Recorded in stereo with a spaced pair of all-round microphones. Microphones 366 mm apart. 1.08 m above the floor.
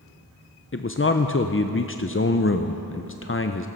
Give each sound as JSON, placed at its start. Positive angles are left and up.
{"t": 0.7, "sound": "a man speaking", "side_deg": 35, "distance_m": 0.5}